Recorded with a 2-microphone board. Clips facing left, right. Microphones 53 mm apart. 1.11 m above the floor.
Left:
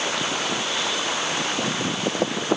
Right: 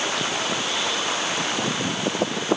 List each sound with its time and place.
Only background noise.